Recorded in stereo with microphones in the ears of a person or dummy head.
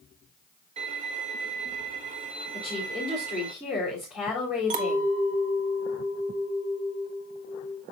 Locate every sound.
0.8 s a violin: 35° right (ahead or behind), 1.0 m
2.5 s a woman speaking: 10° right (ahead or behind), 3.5 m
4.7 s a clink: 40° right (ahead or behind), 1.1 m